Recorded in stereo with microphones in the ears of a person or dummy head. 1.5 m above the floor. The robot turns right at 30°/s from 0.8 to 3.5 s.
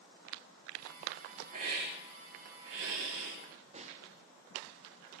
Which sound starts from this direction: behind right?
A hiss, at 1.5 s.